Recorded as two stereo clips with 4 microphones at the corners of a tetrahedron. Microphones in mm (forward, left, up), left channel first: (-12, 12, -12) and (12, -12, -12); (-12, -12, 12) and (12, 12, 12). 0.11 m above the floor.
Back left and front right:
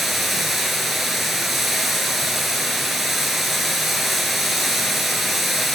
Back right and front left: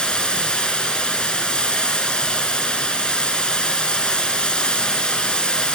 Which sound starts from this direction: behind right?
Running water, at 0.0 s.